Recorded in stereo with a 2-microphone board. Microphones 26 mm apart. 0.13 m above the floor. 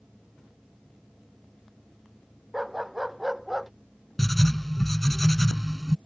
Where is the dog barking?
10° right (ahead or behind); by 3.7 s 5° right (ahead or behind).